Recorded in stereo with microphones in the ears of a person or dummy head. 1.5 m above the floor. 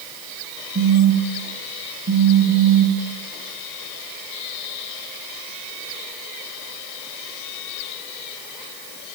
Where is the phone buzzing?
65° right (ahead or behind), 1.3 m.